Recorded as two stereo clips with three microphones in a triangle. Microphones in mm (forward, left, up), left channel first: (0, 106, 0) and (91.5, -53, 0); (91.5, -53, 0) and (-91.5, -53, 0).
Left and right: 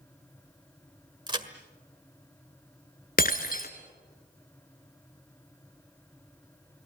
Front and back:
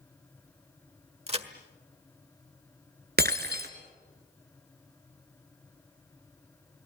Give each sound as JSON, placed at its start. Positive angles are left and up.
{"t": 1.3, "sound": "a crack", "azimuth_deg": -125, "distance_m": 1.5}
{"t": 3.2, "sound": "breaking glass", "azimuth_deg": 155, "distance_m": 1.6}